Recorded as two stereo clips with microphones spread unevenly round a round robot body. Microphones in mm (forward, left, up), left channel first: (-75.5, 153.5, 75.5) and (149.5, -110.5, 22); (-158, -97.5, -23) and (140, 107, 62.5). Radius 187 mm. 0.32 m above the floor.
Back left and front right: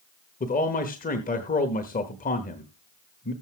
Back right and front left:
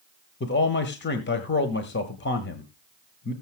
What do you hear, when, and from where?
0.4 s a man speaking: 165° right, 1.2 m